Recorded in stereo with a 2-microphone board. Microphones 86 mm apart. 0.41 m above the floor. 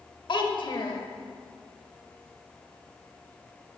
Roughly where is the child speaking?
Left.